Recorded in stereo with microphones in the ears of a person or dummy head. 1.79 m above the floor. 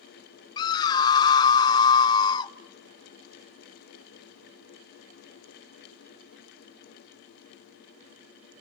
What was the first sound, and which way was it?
A scream, 25° left (ahead or behind).